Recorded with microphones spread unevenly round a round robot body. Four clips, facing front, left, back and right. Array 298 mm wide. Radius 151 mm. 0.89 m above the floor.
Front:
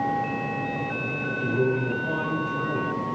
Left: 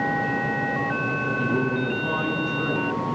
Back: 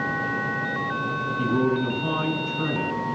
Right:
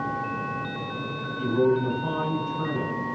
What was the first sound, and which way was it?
A man speaking, 140° left.